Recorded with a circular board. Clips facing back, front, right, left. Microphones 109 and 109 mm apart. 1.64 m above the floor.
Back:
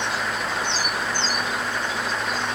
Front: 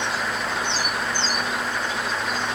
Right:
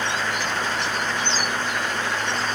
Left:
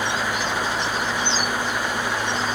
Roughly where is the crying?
I don't hear crying.